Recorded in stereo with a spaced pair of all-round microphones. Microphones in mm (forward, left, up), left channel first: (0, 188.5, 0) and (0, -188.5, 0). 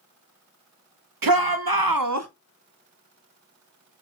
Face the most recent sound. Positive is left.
turn(degrees=-40)  # may be behind; listen again after turning